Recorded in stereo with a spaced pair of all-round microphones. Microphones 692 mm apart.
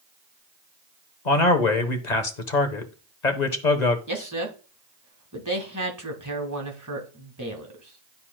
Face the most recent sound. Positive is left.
turn(degrees=-25)  # may be behind; listen again after turning